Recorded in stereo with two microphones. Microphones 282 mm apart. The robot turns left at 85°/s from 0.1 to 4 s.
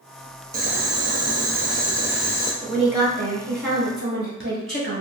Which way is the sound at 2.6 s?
15° left.